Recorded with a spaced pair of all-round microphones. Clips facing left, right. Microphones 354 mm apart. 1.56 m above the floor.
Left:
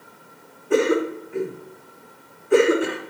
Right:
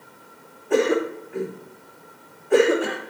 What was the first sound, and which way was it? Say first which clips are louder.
A cough: left 1 dB; 20° left (ahead or behind).